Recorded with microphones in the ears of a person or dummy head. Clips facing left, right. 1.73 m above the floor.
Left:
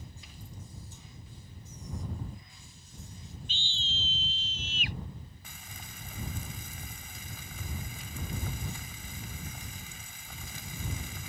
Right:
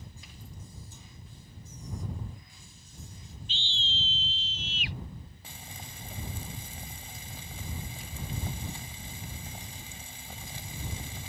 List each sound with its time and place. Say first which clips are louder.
3.5 s a scream: right 1 dB; 45° left (ahead or behind)
5.4 s frying: right 3 dB; 30° right (ahead or behind)